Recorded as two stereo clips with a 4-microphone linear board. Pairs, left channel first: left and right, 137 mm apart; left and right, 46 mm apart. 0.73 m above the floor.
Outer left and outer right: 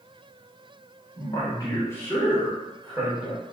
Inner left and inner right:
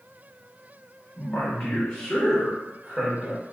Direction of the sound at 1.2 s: 25° left (ahead or behind).